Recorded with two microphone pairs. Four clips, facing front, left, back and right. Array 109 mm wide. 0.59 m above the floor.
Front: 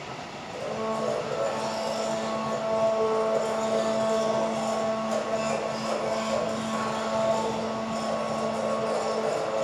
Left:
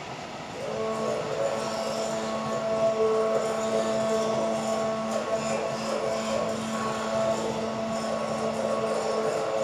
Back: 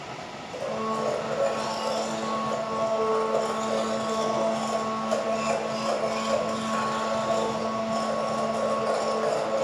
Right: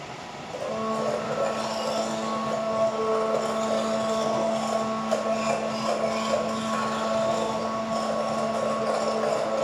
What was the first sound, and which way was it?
A blender, 130° right.